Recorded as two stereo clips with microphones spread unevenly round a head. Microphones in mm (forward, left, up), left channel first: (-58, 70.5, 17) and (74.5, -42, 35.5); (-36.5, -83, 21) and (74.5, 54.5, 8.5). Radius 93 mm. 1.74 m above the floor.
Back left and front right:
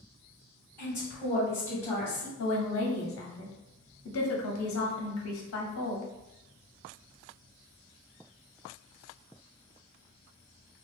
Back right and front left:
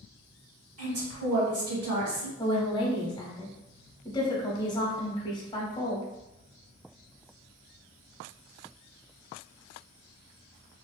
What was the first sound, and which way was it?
A woman speaking, 60° left.